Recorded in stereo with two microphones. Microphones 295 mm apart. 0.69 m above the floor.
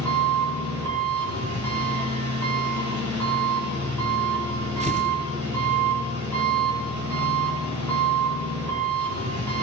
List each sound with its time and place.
0.0 s an engine running: 75° right (ahead or behind), 9 m
4.8 s tearing paper: 25° right (ahead or behind), 3.5 m